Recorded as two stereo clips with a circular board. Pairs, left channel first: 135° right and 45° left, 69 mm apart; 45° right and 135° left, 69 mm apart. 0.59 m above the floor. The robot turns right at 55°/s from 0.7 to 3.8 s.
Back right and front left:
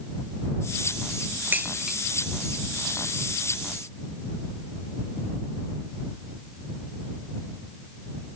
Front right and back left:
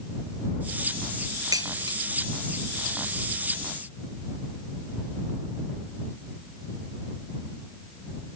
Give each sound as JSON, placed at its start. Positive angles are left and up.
{"t": 1.5, "sound": "dishes clattering", "azimuth_deg": 110}